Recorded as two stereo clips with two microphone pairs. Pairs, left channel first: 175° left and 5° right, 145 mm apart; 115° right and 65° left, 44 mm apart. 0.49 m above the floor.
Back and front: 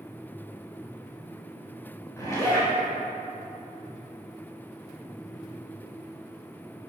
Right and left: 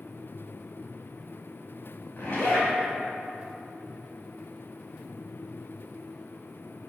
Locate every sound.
2.2 s a zipper: 125° right, 2.0 m